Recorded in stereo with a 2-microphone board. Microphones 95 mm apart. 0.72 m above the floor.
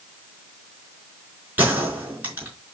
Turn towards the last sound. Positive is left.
turn(degrees=-20)  # may be behind; listen again after turning